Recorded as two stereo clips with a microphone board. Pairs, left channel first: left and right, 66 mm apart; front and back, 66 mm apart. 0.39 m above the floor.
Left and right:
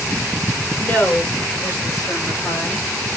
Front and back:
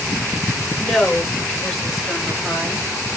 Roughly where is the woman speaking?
Left.